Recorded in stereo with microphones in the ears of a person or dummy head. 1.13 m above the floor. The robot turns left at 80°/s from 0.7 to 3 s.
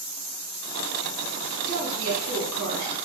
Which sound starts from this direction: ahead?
A woman speaking, at 1.6 s.